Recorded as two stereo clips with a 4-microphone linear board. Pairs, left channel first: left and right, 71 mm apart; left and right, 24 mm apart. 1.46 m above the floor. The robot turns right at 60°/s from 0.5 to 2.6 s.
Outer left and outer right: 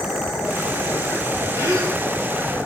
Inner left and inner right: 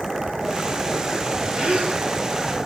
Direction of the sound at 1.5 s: 40° right (ahead or behind).